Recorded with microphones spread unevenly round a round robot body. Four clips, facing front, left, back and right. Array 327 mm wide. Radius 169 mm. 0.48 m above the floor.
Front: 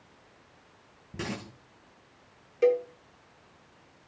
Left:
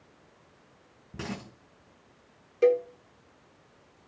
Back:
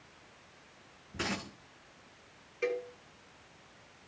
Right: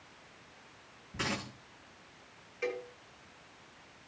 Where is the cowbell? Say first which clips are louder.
Left 15 dB, front 11 dB; 55° left, 1.0 m.